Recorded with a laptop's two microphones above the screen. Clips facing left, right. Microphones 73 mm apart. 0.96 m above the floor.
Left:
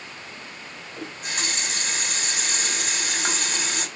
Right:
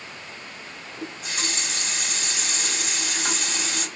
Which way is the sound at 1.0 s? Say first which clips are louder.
Left 1 dB; 55° left (ahead or behind).